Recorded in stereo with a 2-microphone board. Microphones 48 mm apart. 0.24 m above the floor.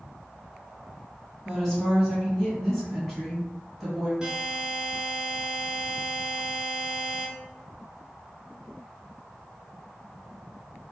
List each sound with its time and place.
1.4 s a woman speaking: 5° left (ahead or behind), 2 m
4.2 s a buzzer: 15° right (ahead or behind), 1.3 m